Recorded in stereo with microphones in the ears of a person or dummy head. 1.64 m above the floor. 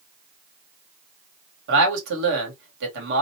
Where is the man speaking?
65° right (ahead or behind), 1.3 m.